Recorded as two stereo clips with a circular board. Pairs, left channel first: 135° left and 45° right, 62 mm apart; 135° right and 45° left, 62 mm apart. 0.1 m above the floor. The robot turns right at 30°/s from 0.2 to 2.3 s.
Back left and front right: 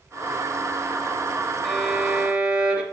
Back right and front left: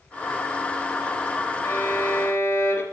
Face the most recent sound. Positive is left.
turn(degrees=-120)